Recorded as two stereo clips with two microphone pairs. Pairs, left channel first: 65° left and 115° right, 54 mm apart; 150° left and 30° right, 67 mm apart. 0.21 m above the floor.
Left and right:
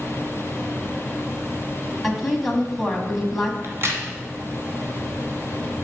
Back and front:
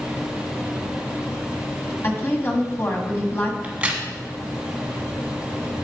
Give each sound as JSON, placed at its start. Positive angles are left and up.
{"t": 2.0, "sound": "a woman speaking", "azimuth_deg": 155, "distance_m": 1.4}
{"t": 3.6, "sound": "a crack", "azimuth_deg": -95, "distance_m": 1.6}